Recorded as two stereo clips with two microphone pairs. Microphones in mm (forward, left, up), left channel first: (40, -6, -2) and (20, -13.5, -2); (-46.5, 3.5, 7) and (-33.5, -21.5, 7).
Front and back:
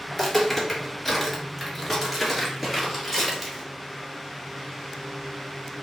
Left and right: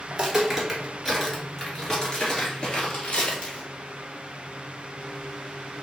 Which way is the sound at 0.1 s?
40° right.